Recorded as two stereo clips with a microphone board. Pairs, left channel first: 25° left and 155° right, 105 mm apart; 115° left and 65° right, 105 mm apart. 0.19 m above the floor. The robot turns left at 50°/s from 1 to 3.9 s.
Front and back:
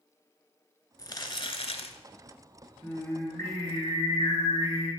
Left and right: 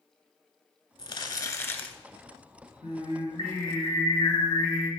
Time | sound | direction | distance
1.0 | crumpling | 80° left | 0.6 m
2.8 | singing | 110° left | 2.5 m